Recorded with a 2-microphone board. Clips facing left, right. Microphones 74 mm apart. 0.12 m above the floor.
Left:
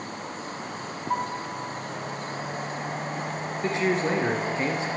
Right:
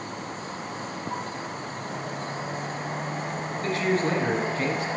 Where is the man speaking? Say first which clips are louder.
Even; 20° left (ahead or behind), 1.6 m.